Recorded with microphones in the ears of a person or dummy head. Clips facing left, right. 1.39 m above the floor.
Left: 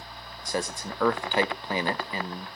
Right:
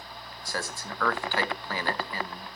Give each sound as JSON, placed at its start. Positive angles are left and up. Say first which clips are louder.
{"t": 0.5, "sound": "a man speaking", "louder": "left 5 dB", "side_deg": 20, "distance_m": 0.6}